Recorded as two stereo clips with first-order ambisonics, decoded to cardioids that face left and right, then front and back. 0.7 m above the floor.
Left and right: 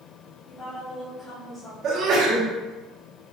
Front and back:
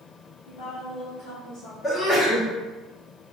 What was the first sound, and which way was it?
A woman speaking, 20° left.